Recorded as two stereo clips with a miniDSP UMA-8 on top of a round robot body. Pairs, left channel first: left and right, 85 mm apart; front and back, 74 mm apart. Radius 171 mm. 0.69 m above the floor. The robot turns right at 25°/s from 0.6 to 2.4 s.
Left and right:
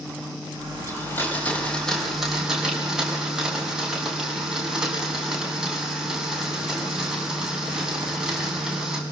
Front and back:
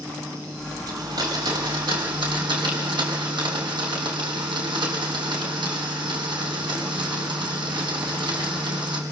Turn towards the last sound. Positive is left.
turn(degrees=-175)